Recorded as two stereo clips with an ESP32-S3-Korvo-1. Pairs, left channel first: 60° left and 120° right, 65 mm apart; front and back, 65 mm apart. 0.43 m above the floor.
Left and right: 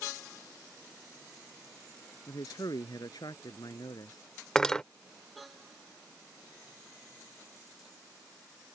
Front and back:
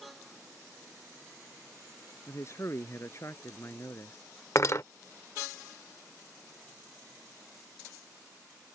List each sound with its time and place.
2.3 s a man speaking: 45° left
4.5 s cutlery clinking: 15° right